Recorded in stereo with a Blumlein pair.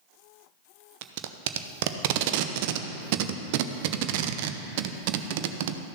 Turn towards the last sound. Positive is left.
turn(degrees=-50)